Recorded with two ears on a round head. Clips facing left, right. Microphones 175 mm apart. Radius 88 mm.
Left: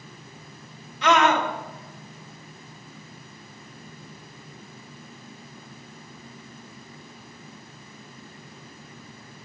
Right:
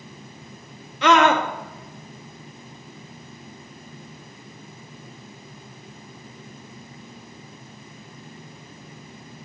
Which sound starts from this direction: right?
A scream, at 1.0 s.